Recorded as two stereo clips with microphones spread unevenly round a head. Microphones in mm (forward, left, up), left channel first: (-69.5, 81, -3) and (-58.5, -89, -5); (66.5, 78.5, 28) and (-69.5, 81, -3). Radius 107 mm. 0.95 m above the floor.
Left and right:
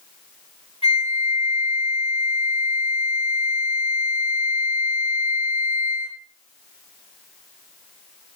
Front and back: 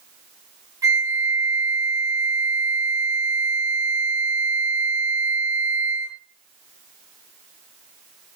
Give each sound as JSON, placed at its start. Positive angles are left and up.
{"t": 0.8, "sound": "a flute", "azimuth_deg": 140, "distance_m": 1.0}